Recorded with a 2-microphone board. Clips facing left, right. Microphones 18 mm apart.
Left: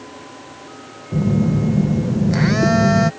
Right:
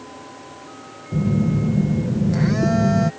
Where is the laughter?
I don't hear laughter.